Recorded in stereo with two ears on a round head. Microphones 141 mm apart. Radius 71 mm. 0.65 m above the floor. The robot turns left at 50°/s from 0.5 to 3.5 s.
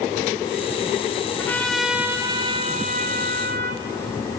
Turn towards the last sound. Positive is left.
turn(degrees=-85)